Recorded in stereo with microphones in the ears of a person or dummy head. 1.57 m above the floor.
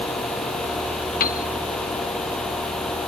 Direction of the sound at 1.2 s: 40° left (ahead or behind).